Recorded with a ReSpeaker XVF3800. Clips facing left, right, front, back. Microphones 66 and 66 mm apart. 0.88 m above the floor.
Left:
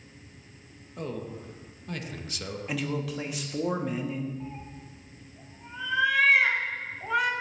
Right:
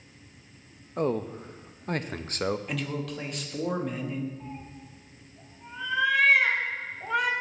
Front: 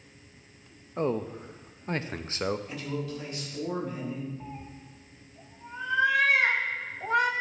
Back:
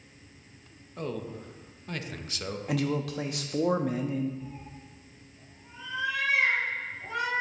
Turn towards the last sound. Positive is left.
turn(degrees=0)